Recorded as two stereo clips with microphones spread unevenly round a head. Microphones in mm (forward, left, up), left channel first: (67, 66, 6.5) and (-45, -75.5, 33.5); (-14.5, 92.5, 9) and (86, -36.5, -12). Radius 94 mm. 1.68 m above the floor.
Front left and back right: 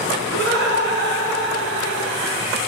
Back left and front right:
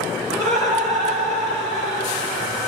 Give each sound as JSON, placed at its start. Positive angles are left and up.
{"t": 0.3, "sound": "laughter", "azimuth_deg": -155, "distance_m": 3.0}